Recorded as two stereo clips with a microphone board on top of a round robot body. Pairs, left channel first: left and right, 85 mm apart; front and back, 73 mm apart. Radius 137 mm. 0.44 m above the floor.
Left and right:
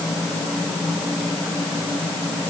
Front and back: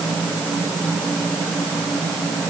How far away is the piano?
No piano in this recording.